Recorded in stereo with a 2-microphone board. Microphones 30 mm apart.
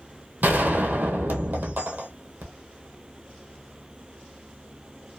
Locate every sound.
0.4 s a gunshot: 65° right (ahead or behind), 0.9 m